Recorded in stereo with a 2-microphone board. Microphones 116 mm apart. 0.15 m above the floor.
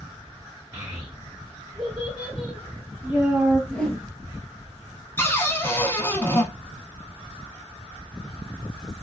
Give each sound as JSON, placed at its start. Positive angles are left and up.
{"t": 0.7, "sound": "a child speaking", "side_deg": -10, "distance_m": 1.5}
{"t": 3.7, "sound": "a whoosh", "side_deg": 10, "distance_m": 0.6}
{"t": 5.2, "sound": "a cupboard door", "side_deg": 20, "distance_m": 0.5}